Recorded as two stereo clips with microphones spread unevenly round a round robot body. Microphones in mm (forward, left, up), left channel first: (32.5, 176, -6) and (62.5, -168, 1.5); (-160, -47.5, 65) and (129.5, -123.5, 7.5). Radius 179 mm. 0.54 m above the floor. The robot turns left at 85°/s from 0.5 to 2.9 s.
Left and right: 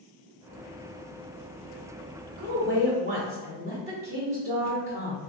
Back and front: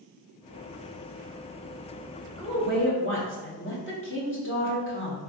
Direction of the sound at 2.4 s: 105° right.